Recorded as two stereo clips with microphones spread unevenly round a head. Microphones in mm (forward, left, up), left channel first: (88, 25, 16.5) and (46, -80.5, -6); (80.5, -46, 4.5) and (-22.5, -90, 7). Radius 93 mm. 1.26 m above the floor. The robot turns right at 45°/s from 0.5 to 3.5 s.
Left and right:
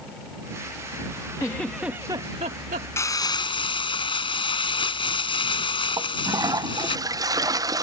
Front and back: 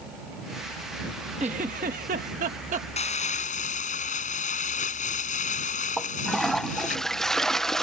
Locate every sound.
1.4 s a giggle: 145° left; by 2.9 s 150° right
3.0 s crumpling: 5° left; by 7.0 s 30° left
6.0 s a toilet flushing: 60° right